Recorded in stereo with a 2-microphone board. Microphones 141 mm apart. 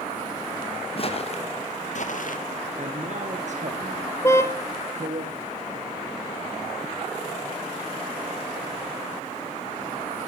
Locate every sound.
1.0 s footsteps: 45° left (ahead or behind), 3 m; by 2.4 s 70° left (ahead or behind), 2 m
2.8 s a man speaking: 60° right (ahead or behind), 2.5 m
4.2 s a car horn: 20° left (ahead or behind), 2 m